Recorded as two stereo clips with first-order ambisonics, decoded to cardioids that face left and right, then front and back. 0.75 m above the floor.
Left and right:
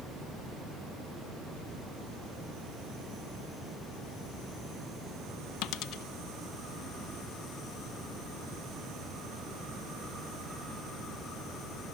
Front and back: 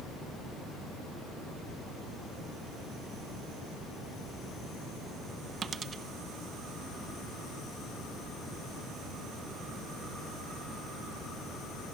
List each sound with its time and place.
5.6 s a dropped coin: 115° left, 1.2 m